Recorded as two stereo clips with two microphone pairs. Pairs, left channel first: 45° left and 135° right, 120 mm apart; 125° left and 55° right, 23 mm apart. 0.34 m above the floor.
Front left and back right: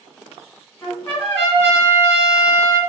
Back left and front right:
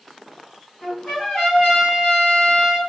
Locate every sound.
0.8 s a trumpet: 105° left, 1.7 m